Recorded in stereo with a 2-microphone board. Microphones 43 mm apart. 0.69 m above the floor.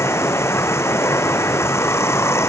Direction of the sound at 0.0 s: 80° left.